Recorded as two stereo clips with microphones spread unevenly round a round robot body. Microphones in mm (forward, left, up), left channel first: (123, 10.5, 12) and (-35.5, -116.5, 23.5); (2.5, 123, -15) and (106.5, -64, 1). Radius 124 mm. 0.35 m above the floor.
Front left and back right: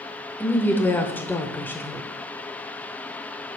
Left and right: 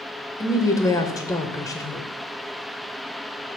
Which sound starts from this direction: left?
A woman speaking, at 0.4 s.